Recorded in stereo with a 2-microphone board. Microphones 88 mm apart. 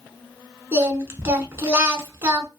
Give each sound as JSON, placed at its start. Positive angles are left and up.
{"t": 0.7, "sound": "singing", "side_deg": -30, "distance_m": 0.7}